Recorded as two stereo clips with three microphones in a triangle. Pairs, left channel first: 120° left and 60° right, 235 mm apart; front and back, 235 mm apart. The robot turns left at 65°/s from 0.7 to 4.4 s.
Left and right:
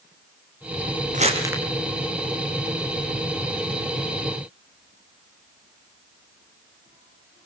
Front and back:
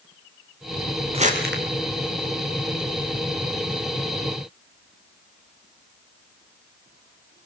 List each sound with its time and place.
1.1 s crumpling: 115° right, 3.5 m; by 1.6 s 145° right, 3.5 m